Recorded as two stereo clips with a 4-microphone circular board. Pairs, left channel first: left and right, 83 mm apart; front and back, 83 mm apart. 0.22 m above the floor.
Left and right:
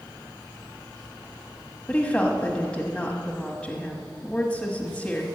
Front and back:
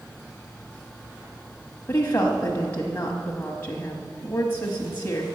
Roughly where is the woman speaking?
Ahead left.